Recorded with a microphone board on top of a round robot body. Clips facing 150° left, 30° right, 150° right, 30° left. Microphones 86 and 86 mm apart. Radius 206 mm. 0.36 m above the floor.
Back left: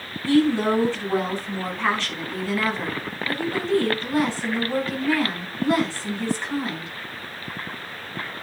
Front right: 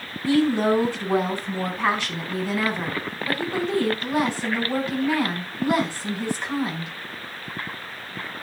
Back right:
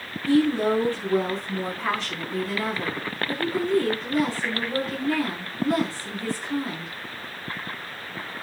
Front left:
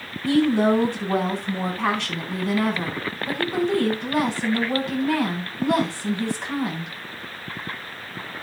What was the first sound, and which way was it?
A woman speaking, 45° left.